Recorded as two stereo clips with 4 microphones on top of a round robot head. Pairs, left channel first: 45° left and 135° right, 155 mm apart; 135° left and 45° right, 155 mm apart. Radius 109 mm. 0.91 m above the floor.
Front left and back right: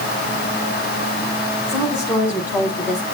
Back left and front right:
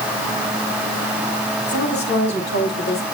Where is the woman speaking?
140° left, 8 m; by 3.0 s 145° left, 7 m.